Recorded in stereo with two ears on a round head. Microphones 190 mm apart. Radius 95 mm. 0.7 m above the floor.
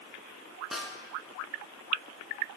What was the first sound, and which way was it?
A snare drum, centre (ahead or behind).